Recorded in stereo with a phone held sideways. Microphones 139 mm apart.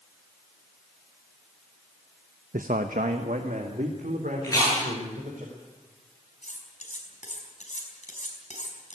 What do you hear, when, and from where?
2.5 s a man speaking: 80° right, 0.8 m; by 5.4 s 85° right, 5 m
4.4 s chewing: 25° left (ahead or behind), 9.5 m
6.4 s cutlery clinking: 60° left (ahead or behind), 5 m